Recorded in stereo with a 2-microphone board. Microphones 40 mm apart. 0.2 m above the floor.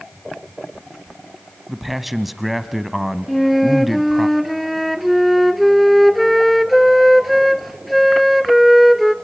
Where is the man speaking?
5° right (ahead or behind), 1.1 m.